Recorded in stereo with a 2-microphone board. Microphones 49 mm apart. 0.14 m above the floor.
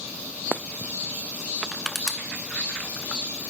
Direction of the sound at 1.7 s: 5° left (ahead or behind).